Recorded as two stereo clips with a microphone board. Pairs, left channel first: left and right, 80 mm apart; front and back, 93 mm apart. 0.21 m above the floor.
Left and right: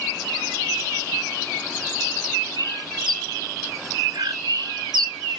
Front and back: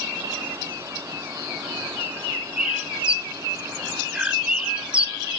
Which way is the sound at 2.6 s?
105° right.